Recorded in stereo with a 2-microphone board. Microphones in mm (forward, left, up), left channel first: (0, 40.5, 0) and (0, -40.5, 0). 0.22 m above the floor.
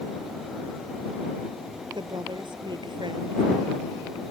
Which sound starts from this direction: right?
A woman speaking, at 1.9 s.